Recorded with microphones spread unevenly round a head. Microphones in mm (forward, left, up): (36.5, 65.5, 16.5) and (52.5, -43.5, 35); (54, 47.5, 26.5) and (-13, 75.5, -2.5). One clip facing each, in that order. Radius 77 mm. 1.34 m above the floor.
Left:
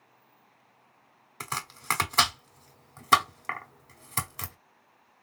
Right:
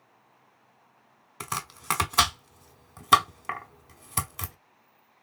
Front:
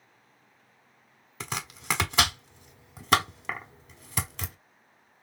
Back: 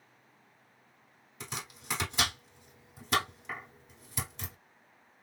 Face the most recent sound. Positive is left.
turn(degrees=0)